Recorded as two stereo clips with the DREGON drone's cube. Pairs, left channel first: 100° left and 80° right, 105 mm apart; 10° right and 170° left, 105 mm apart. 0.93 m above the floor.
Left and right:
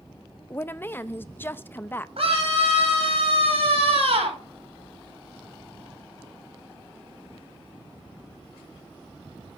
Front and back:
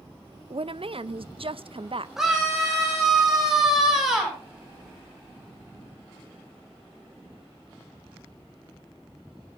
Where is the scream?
105° right, 6.5 m.